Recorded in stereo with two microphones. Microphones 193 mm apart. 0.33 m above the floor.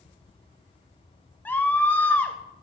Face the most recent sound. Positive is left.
turn(degrees=10)  # may be behind; listen again after turning